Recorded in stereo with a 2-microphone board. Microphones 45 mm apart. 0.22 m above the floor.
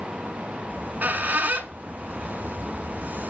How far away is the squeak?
About 1.0 m.